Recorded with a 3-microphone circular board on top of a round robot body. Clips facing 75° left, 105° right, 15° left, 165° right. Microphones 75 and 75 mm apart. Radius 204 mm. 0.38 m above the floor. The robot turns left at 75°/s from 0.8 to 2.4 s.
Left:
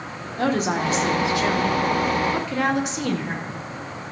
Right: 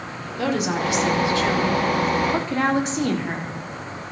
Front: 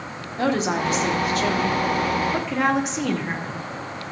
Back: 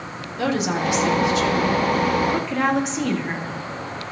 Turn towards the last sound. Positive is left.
turn(degrees=-70)